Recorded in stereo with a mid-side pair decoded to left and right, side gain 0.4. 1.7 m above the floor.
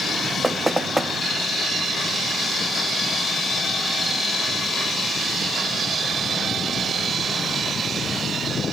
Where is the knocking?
10° right, 1.1 m.